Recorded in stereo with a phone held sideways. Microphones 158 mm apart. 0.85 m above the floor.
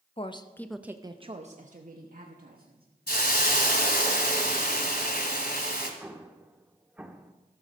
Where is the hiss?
75° left (ahead or behind), 1.6 m.